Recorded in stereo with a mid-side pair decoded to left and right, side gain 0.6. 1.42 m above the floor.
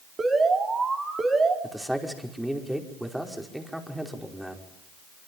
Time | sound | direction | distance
0.2 | an alarm | 25° right | 5 m
1.6 | a man speaking | 5° right | 5 m